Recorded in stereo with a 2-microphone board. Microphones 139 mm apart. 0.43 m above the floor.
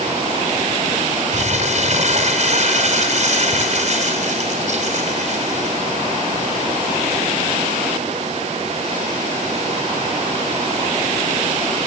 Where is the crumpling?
55° right (ahead or behind), 3 m.